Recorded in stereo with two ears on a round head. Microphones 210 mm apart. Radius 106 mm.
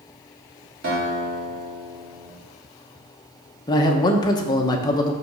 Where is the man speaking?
15° left (ahead or behind), 1.0 m.